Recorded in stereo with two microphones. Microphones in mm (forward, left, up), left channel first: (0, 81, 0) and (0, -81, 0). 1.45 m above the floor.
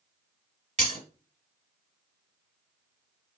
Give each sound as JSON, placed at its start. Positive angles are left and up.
{"t": 0.8, "sound": "breaking glass", "side_deg": -45, "distance_m": 2.0}